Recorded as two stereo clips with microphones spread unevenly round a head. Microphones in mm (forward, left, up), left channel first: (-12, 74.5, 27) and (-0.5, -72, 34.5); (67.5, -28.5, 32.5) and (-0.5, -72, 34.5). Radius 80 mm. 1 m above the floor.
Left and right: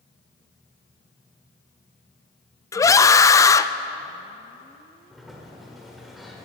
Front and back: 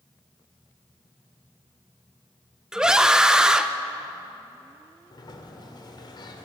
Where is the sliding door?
5° left, 1.5 m.